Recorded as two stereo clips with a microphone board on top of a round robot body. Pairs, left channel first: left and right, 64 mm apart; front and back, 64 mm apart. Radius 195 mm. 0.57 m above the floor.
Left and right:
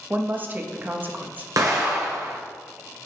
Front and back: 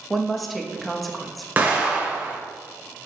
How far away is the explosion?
About 1.4 m.